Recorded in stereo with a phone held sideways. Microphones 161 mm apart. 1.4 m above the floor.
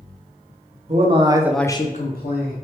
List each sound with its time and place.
0.9 s a man speaking: 45° right (ahead or behind), 1.0 m; by 2.5 s 80° left, 1.1 m